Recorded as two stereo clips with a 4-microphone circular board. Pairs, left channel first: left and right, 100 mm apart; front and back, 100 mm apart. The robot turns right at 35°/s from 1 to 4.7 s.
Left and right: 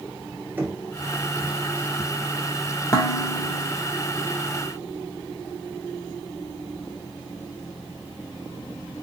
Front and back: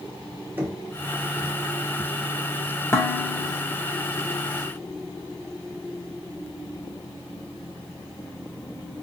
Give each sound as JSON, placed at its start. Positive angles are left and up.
{"t": 0.6, "sound": "knocking", "azimuth_deg": -140, "distance_m": 0.9}
{"t": 2.9, "sound": "dishes clattering", "azimuth_deg": 50, "distance_m": 0.8}